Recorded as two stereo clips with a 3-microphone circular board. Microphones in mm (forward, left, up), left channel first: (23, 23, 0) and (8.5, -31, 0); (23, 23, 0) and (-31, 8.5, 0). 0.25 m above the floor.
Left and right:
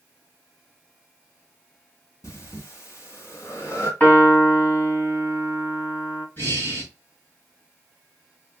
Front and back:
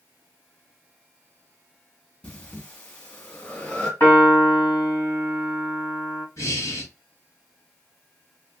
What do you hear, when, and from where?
2.2 s breathing: 80° left, 1.5 m
4.0 s a piano: 30° left, 2 m
6.4 s breathing: 40° left, 3 m